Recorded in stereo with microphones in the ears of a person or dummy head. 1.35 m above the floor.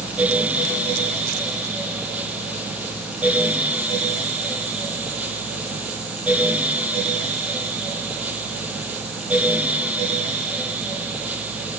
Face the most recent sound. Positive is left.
No sound to turn to.